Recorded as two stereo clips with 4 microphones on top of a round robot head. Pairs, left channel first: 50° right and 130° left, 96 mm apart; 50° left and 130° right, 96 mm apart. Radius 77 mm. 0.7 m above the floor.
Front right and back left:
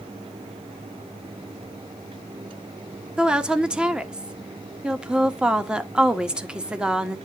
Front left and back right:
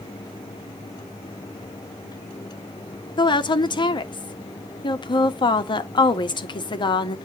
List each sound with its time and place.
3.2 s a woman speaking: 50° left, 1.3 m